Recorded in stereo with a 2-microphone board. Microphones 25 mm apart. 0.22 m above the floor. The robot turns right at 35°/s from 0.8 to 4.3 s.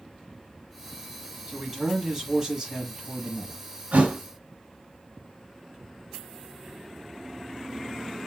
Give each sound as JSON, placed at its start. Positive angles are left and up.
{"t": 1.5, "sound": "a man speaking", "azimuth_deg": -135, "distance_m": 1.3}
{"t": 3.9, "sound": "a thud", "side_deg": -70, "distance_m": 1.1}